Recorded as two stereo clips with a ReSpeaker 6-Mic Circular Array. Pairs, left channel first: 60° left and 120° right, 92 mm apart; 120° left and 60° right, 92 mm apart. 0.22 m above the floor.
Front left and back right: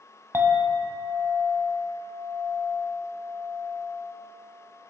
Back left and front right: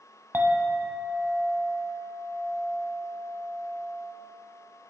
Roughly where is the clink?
Right.